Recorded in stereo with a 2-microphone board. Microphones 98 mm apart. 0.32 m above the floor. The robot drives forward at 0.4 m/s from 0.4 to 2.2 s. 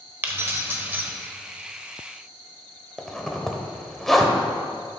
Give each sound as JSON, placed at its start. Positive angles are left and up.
{"t": 0.2, "sound": "keys jangling", "side_deg": -25, "distance_m": 0.8}
{"t": 3.0, "sound": "a zipper", "side_deg": 5, "distance_m": 0.8}